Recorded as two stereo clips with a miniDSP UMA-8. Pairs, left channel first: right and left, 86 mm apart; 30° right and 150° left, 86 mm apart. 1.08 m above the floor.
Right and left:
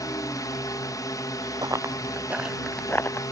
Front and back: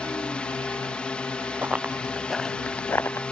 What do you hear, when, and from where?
0.0 s a drone: 105° right
1.6 s running footsteps: 85° left; by 3.2 s 65° right